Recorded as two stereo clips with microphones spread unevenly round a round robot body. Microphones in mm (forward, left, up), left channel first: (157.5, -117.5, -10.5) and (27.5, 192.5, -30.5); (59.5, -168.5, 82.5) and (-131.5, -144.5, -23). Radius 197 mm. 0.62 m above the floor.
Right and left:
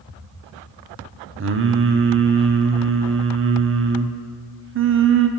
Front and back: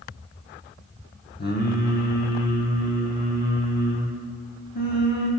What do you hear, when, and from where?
1.4 s singing: 65° left, 0.6 m